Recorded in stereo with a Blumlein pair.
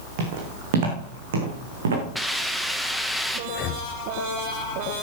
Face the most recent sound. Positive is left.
turn(degrees=40)